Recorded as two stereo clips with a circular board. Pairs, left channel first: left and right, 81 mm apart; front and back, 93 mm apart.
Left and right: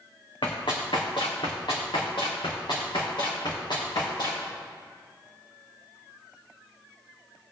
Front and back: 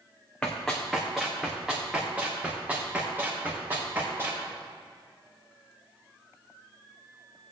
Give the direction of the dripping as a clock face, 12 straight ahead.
No dripping in this recording.